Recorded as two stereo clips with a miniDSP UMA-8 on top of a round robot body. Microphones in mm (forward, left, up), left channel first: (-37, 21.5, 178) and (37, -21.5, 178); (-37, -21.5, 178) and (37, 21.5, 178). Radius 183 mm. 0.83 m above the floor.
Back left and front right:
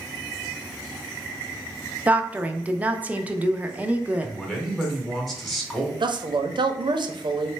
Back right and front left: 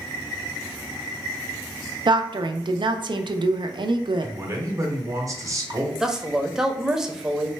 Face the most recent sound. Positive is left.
turn(degrees=-55)